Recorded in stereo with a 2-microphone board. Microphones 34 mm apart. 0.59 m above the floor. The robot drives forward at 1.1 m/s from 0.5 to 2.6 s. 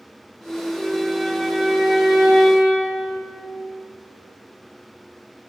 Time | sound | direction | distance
0.7 | a violin | 5° right (ahead or behind) | 3 m